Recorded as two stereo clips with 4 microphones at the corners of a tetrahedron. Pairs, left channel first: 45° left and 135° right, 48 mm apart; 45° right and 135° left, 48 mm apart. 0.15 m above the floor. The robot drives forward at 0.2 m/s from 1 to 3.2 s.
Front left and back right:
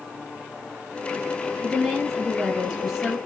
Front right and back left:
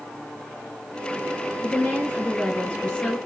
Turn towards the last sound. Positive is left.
turn(degrees=-70)